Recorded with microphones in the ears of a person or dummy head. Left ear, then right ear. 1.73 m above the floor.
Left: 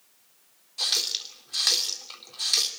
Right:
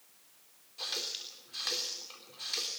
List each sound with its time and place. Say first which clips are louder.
0.8 s a running tap: left 11 dB; 35° left (ahead or behind), 3 m